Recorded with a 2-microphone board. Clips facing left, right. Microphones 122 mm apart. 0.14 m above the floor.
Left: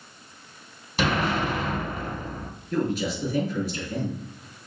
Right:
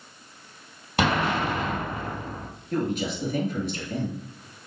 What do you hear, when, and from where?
1.0 s an explosion: 55° right (ahead or behind), 2.5 m
2.7 s a man speaking: 50° right (ahead or behind), 2 m